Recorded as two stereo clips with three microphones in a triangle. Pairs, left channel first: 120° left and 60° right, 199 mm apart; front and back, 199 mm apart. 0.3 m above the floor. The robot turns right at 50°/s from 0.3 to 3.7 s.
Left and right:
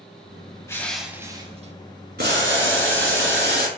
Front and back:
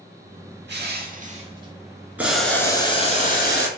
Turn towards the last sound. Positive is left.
turn(degrees=-25)